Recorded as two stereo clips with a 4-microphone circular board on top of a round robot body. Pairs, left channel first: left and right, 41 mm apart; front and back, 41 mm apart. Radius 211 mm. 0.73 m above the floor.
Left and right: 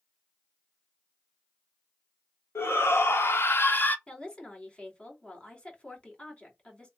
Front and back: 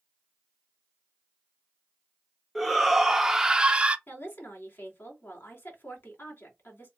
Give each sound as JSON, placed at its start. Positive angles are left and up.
{"t": 2.5, "sound": "a shout", "azimuth_deg": 90, "distance_m": 1.6}
{"t": 4.1, "sound": "a woman speaking", "azimuth_deg": 25, "distance_m": 3.0}